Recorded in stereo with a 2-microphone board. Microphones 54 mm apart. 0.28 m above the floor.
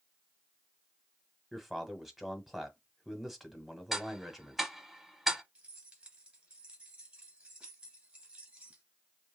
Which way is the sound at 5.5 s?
25° right (ahead or behind).